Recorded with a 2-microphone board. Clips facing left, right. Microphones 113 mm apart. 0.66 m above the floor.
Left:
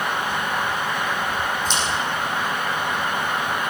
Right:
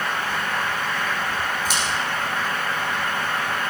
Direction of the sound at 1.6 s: 5° right (ahead or behind).